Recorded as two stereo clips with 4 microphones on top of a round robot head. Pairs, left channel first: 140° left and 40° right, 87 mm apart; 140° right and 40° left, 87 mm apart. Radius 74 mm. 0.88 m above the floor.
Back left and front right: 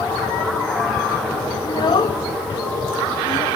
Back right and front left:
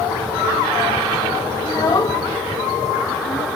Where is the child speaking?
175° left, 0.9 m.